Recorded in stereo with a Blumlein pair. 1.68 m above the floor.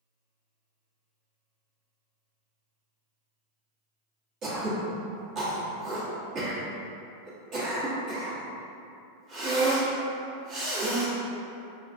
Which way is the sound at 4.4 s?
30° right.